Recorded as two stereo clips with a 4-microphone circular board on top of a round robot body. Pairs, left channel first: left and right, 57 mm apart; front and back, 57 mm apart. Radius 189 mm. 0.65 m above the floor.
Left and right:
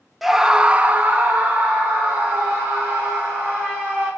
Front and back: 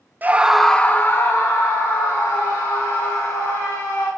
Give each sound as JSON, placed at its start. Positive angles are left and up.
{"t": 0.2, "sound": "a scream", "azimuth_deg": -175, "distance_m": 0.9}